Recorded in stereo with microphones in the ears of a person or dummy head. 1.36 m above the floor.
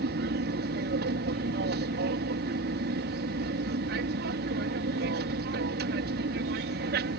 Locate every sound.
0.0 s an aircraft: 60° right (ahead or behind)